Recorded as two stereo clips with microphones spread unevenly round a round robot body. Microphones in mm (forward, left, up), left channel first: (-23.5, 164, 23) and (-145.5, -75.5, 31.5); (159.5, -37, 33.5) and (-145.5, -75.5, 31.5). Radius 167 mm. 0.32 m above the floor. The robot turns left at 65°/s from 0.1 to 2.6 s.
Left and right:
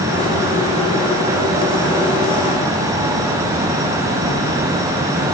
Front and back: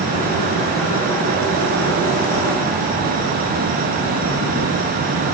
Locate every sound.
Only background noise.